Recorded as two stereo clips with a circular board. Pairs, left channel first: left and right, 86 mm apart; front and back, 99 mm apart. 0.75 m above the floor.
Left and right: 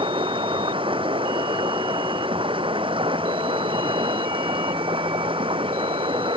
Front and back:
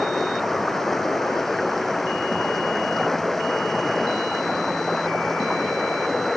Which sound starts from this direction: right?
Running water, at 0.0 s.